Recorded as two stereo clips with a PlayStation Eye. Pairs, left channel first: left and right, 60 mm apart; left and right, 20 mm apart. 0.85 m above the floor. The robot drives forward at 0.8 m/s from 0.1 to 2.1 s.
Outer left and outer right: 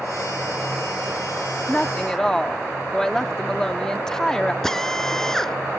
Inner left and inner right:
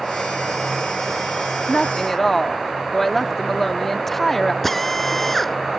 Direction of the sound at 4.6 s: 10° left (ahead or behind).